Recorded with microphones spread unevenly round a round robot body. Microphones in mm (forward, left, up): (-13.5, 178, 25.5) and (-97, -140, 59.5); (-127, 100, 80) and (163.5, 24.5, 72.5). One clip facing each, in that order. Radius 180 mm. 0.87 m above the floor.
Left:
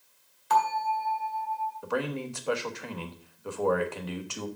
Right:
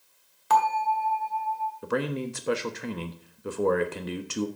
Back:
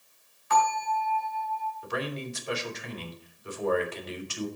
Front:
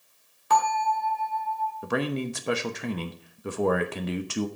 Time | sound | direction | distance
0.5 | a bell | 65° right | 2 m
1.8 | a man speaking | 35° right | 1.0 m